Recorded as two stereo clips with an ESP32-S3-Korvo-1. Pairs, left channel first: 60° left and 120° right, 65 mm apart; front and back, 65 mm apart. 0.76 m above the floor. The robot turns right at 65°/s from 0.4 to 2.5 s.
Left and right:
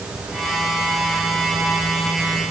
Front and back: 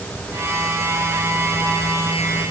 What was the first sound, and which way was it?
Only background noise.